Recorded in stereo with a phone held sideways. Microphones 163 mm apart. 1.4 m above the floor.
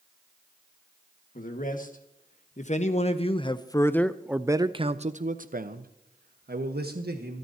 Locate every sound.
1.4 s a man speaking: 60° left (ahead or behind), 1.7 m; by 7.4 s 80° right, 1.7 m